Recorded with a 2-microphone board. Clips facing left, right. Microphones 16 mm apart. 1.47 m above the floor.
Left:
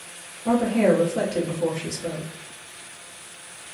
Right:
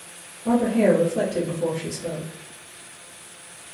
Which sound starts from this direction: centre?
A woman speaking, at 0.5 s.